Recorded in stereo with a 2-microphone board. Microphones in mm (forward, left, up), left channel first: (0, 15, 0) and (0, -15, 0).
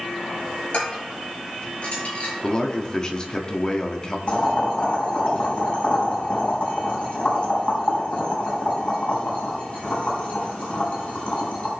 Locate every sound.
0.7 s dishes clattering: 45° left (ahead or behind), 6 m
2.4 s a man speaking: 30° left (ahead or behind), 1.4 m
4.3 s boiling: 40° left (ahead or behind), 4 m